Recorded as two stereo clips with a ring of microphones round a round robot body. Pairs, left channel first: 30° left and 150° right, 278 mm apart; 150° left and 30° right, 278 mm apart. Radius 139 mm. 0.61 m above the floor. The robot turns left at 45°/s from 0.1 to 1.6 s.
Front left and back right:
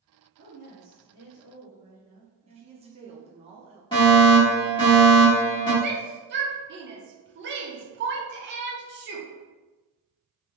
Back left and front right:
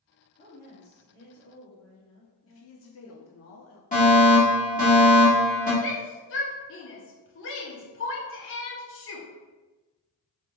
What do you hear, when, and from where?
0.4 s a woman speaking: 150° right, 1.4 m; by 3.3 s 155° left, 1.4 m
2.5 s a woman speaking: 150° left, 0.7 m
3.9 s a fire alarm: 95° left, 2.0 m
5.8 s a shout: 175° left, 1.0 m